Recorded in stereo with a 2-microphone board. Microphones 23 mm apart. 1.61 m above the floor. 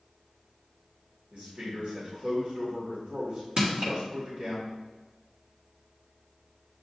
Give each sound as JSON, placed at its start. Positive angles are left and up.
{"t": 1.3, "sound": "a man speaking", "side_deg": -70, "distance_m": 1.8}
{"t": 3.6, "sound": "crushing", "side_deg": -45, "distance_m": 1.4}